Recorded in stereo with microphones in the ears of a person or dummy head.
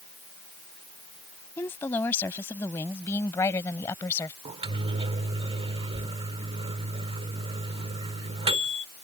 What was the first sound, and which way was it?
A woman speaking, 10° left (ahead or behind).